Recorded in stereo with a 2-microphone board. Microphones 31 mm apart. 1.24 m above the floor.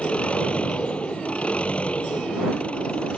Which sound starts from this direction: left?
An engine running, at 0.0 s.